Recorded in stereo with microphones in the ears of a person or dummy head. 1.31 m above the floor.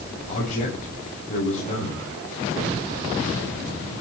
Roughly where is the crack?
I don't hear a crack.